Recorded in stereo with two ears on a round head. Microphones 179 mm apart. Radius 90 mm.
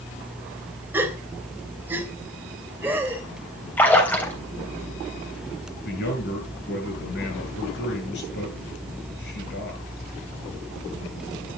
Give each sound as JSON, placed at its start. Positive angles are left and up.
{"t": 0.9, "sound": "a gasp", "side_deg": -10, "distance_m": 3.0}
{"t": 3.8, "sound": "a splash", "side_deg": 10, "distance_m": 3.5}
{"t": 5.8, "sound": "a man speaking", "side_deg": 60, "distance_m": 10.0}